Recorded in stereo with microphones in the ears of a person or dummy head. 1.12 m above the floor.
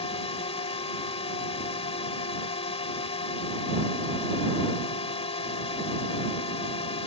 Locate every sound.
0.0 s a drone: 40° left (ahead or behind)